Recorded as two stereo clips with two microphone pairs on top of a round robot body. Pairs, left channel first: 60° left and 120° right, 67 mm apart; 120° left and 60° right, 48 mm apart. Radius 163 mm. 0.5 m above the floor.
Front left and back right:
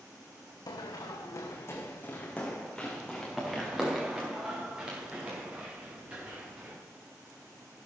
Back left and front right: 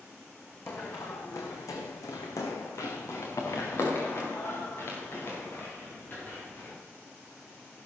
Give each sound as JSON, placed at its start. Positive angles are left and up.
{"t": 0.7, "sound": "running footsteps", "azimuth_deg": 75, "distance_m": 2.0}